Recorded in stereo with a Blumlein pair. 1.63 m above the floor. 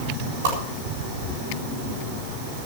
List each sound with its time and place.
0.4 s a whoosh: 55° right, 7.5 m